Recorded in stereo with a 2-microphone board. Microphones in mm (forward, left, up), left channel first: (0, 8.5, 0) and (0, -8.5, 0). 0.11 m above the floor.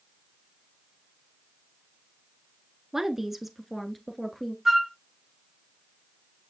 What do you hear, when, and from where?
2.9 s a woman speaking: 25° right (ahead or behind), 1.1 m; by 4.5 s 15° left (ahead or behind), 1.6 m
4.7 s a flute: 15° right (ahead or behind), 0.7 m